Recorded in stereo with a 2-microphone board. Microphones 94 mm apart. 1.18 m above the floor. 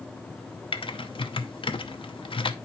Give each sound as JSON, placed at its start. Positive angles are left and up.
{"t": 0.7, "sound": "typing on a keyboard", "side_deg": 65, "distance_m": 0.7}